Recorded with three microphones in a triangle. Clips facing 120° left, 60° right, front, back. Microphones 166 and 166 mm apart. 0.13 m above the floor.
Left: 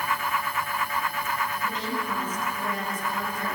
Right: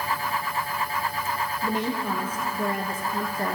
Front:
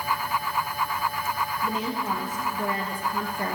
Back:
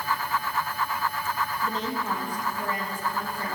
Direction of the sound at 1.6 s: 80° right.